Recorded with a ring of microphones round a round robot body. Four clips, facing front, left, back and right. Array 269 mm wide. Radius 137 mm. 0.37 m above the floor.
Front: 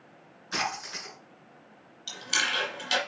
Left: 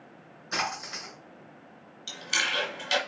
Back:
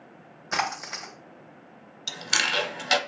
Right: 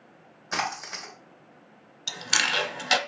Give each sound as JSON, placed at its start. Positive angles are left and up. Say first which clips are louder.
{"t": 0.5, "sound": "a splash", "louder": "right 2 dB, back 4 dB", "azimuth_deg": -175, "distance_m": 2.5}
{"t": 2.1, "sound": "chewing", "louder": "right 3 dB, back 2 dB", "azimuth_deg": -135, "distance_m": 0.8}